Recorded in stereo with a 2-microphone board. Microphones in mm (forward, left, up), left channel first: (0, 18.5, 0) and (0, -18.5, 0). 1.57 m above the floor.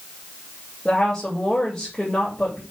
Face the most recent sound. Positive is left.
turn(degrees=20)  # may be behind; listen again after turning